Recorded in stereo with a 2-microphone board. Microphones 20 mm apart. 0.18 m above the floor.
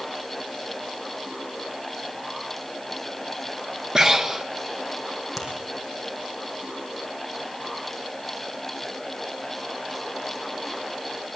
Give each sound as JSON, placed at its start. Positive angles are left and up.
{"t": 4.0, "sound": "breathing", "side_deg": -30, "distance_m": 0.9}
{"t": 5.4, "sound": "a finger snap", "side_deg": -5, "distance_m": 5.5}